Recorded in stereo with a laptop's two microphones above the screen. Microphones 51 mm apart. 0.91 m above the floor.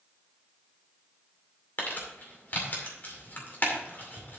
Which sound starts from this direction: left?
Crumpling, at 1.8 s.